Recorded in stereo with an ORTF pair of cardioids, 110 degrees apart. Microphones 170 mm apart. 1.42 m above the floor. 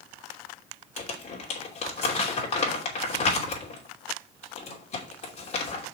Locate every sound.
1.0 s crumpling: 40° left, 3 m